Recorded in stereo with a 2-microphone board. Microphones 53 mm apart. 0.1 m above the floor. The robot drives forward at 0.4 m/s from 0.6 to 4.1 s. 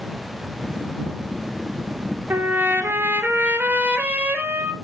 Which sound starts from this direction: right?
A trumpet, at 2.3 s.